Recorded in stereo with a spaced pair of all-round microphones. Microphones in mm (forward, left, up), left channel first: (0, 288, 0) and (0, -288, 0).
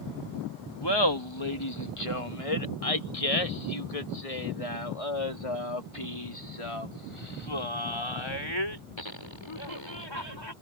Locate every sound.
0.8 s laughter: 40° left (ahead or behind); by 10.5 s 45° left (ahead or behind)